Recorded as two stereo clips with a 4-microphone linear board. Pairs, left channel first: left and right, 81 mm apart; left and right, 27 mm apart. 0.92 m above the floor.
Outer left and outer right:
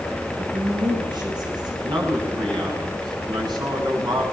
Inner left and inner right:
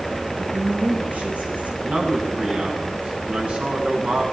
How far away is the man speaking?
About 8.5 m.